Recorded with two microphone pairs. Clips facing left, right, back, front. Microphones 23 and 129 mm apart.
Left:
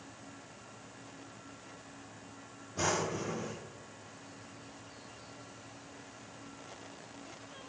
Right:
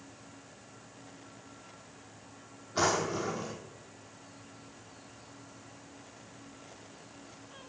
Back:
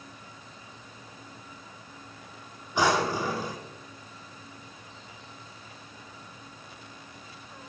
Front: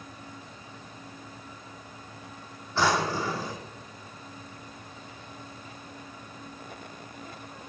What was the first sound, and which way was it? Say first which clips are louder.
A drawer: right 4 dB, back 1 dB; 105° right.